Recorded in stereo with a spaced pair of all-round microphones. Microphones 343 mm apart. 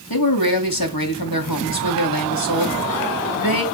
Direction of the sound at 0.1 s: 80° left.